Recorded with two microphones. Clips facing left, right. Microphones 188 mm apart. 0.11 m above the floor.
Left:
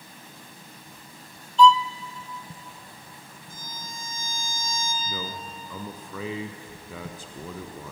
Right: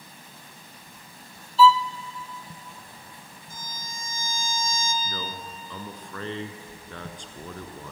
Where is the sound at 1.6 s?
5° right (ahead or behind), 0.6 m.